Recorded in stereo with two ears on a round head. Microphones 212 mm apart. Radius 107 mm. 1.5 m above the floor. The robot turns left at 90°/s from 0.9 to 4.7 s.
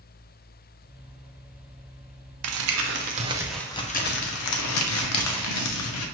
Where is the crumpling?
80° right, 0.7 m; by 6.0 s 75° left, 0.7 m.